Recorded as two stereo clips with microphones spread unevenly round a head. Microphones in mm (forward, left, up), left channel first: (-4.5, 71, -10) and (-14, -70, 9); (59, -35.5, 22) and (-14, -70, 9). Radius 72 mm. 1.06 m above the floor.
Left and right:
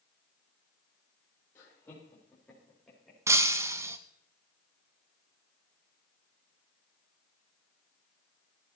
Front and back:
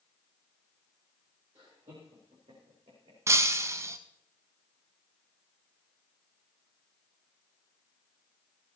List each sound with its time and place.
1.6 s laughter: 155° left, 3 m; by 3.2 s 175° left, 5 m
3.3 s breaking glass: 120° right, 1.0 m